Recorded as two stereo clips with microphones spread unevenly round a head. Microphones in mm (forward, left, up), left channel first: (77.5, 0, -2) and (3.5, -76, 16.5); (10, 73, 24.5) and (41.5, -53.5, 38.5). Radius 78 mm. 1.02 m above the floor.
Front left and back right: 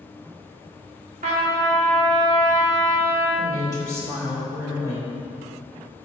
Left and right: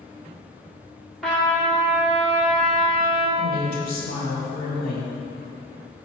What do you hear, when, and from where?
1.2 s a trumpet: 165° right, 1.7 m
3.4 s a woman speaking: 115° left, 2.5 m